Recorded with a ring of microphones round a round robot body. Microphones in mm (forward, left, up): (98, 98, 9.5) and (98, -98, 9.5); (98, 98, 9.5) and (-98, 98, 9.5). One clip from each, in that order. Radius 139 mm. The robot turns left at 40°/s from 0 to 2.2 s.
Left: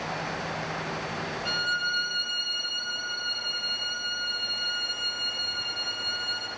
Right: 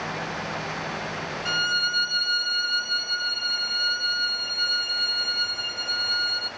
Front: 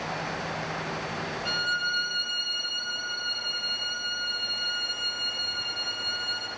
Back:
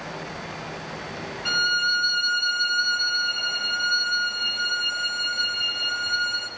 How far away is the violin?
About 1.9 m.